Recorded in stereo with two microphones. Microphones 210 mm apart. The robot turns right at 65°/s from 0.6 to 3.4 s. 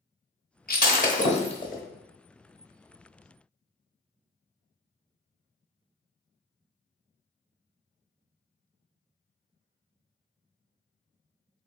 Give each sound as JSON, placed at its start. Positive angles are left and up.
{"t": 0.7, "sound": "breaking glass", "side_deg": 45, "distance_m": 1.0}